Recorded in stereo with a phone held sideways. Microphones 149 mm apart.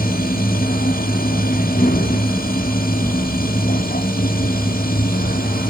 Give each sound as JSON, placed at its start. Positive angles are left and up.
{"t": 0.0, "sound": "a machine running", "side_deg": 85, "distance_m": 0.8}